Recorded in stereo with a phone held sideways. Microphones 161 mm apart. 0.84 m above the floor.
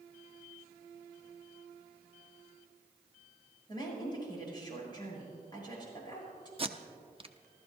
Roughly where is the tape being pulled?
Right.